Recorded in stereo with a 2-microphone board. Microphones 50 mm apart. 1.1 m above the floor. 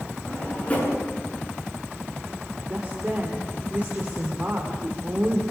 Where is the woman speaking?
30° right (ahead or behind), 3 m.